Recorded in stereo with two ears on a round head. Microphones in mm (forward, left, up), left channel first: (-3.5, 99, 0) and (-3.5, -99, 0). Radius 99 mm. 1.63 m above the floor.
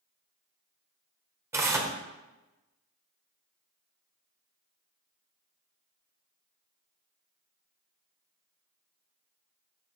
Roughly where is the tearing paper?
Centre.